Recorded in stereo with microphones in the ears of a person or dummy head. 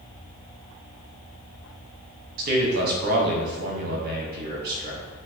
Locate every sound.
2.4 s a man speaking: 55° right (ahead or behind), 1.6 m